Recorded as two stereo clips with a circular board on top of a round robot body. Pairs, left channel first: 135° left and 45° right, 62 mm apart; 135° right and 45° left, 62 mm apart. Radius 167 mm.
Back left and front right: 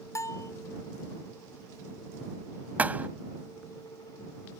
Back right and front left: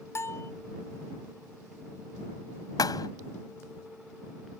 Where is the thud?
115° right.